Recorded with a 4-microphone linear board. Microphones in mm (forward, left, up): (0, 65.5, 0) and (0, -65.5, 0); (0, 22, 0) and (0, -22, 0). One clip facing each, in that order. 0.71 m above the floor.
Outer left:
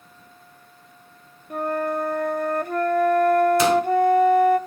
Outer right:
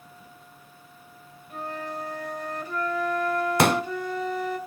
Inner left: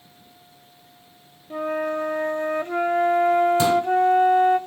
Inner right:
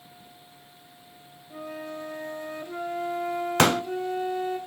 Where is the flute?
60° left (ahead or behind), 0.8 m.